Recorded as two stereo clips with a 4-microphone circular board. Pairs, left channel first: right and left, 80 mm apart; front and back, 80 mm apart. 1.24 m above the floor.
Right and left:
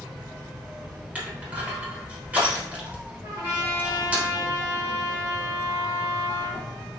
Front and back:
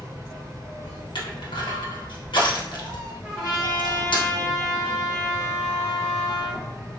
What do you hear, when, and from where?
0.0 s an insect: 75° left, 1.1 m
1.1 s crushing: 20° left, 1.0 m
3.2 s a trumpet: 90° left, 1.9 m